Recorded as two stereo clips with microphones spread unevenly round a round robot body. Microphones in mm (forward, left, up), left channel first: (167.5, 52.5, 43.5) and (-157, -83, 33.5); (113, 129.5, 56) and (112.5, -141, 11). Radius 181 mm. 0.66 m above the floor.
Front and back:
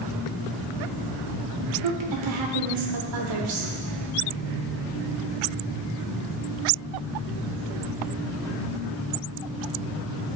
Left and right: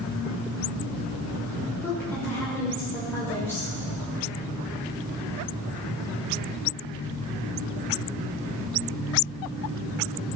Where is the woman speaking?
175° left, 1.8 m.